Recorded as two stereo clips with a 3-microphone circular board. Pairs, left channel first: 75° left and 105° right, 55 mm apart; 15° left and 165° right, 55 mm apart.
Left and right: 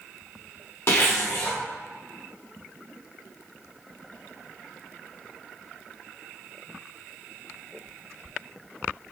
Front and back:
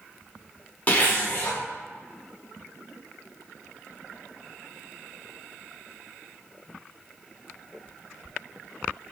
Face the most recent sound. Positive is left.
turn(degrees=70)